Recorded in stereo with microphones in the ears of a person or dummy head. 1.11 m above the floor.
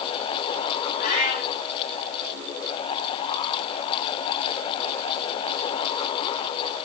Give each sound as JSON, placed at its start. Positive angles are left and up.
{"t": 1.0, "sound": "a cat meowing", "side_deg": 45, "distance_m": 4.5}